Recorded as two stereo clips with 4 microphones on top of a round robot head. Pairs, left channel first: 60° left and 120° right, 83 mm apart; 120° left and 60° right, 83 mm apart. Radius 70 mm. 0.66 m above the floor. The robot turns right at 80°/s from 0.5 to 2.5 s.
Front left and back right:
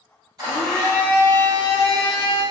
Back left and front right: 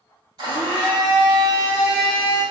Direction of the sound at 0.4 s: 90° right.